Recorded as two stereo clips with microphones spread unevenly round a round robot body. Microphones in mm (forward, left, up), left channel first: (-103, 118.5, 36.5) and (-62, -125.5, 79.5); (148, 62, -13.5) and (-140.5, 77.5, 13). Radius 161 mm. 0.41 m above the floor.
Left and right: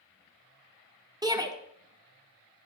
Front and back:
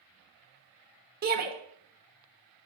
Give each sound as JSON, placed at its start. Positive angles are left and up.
{"t": 1.2, "sound": "a shout", "azimuth_deg": -160, "distance_m": 1.2}